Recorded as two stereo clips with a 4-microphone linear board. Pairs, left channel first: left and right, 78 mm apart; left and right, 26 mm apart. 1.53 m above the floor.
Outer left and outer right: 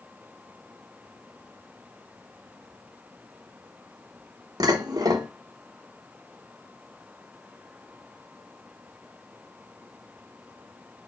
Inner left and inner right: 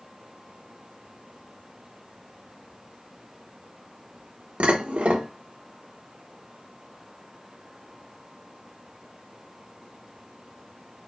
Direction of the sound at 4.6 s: 55° right (ahead or behind).